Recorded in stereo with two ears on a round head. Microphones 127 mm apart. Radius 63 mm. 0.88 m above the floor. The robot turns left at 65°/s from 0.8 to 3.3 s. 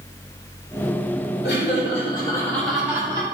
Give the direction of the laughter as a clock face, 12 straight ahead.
9 o'clock.